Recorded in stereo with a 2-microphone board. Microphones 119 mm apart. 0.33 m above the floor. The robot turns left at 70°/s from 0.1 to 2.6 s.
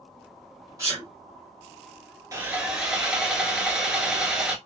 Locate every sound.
0.8 s a sneeze: 30° right (ahead or behind), 1.7 m; by 1.1 s 20° right (ahead or behind), 1.7 m
2.3 s sawing: 30° right (ahead or behind), 1.0 m; by 4.5 s 5° right (ahead or behind), 1.0 m